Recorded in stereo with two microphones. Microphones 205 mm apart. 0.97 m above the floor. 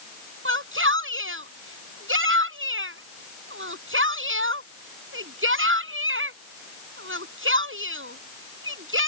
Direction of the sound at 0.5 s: 85° right.